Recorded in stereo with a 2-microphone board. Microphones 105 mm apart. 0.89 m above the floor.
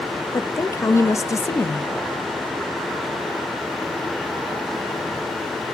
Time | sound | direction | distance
0.3 | a woman speaking | 30° left (ahead or behind) | 0.6 m